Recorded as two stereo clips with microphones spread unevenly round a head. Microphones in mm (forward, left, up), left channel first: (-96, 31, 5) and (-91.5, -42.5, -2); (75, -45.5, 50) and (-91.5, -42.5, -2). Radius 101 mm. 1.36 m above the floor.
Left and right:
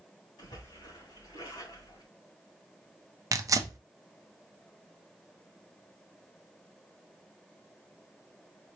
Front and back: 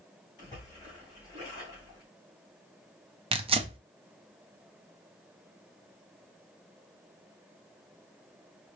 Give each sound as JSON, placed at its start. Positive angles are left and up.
{"t": 0.4, "sound": "a splash", "azimuth_deg": 65, "distance_m": 3.0}
{"t": 3.3, "sound": "tearing paper", "azimuth_deg": -130, "distance_m": 0.8}